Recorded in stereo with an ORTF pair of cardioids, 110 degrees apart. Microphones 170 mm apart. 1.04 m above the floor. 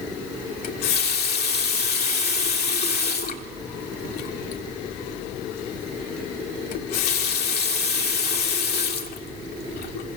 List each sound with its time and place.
0.6 s a running tap: 70° left, 2.0 m